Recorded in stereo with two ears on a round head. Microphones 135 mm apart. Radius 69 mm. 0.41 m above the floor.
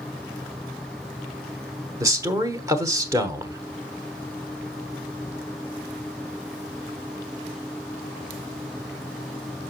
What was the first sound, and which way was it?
A man speaking, 20° right (ahead or behind).